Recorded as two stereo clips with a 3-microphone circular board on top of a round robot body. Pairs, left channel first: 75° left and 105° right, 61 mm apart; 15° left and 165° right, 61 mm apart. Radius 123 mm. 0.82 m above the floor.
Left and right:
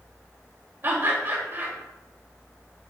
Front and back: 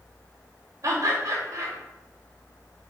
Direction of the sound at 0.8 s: 155° right.